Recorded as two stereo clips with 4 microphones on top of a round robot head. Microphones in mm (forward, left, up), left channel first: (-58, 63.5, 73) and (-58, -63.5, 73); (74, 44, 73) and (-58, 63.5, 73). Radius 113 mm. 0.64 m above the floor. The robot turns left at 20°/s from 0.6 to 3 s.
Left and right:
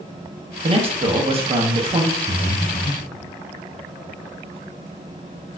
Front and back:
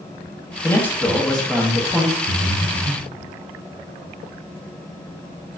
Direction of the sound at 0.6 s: 75° right.